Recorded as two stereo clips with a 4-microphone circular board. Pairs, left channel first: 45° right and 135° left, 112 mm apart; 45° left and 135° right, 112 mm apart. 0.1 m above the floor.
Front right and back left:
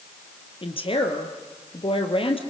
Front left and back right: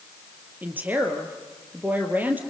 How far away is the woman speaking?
About 2.5 m.